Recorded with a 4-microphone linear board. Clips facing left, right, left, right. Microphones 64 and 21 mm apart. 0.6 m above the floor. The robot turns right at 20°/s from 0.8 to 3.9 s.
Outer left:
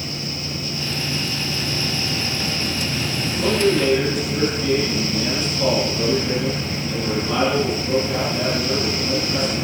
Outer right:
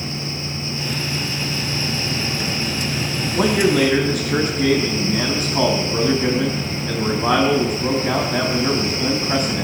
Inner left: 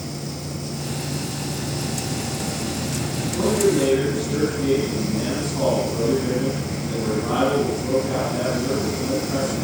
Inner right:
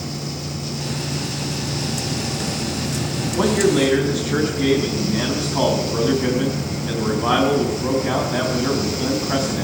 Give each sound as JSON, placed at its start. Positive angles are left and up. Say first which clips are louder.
{"t": 3.4, "sound": "a man speaking", "louder": "outer right 2 dB, inner right 2 dB", "side_deg": -80, "distance_m": 5.0}